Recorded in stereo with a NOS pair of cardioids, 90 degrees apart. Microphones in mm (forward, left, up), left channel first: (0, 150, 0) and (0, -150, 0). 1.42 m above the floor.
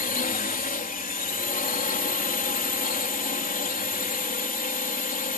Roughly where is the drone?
Ahead left.